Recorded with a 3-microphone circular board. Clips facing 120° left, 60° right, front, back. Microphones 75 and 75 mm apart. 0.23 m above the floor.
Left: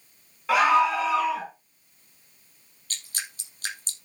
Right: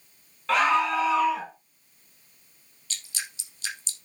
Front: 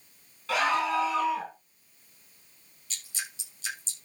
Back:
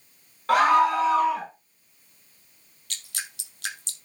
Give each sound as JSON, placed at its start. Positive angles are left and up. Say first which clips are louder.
{"t": 0.5, "sound": "a scream", "louder": "left 2 dB, back 8 dB", "azimuth_deg": -160, "distance_m": 2.5}
{"t": 2.9, "sound": "dripping", "louder": "left 1 dB, back 3 dB", "azimuth_deg": 165, "distance_m": 3.5}